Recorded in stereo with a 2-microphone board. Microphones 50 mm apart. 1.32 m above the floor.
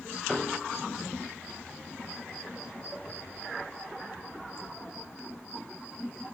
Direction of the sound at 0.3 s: 10° left (ahead or behind).